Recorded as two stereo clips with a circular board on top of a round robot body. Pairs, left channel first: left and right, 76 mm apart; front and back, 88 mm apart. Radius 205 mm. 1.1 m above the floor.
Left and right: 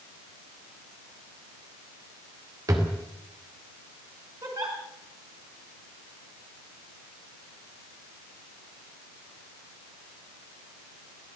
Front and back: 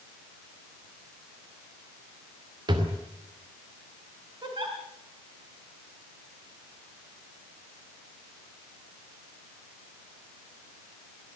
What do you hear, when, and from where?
2.7 s a drawer: 140° right, 2.5 m
4.4 s a giggle: 135° right, 3 m